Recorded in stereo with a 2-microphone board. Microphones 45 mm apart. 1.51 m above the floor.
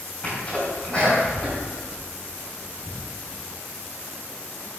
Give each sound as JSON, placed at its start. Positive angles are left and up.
{"t": 0.2, "sound": "a sneeze", "side_deg": 25, "distance_m": 4.5}